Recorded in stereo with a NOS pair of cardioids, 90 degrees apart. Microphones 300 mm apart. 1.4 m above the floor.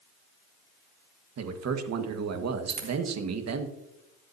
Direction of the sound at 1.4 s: 55° right.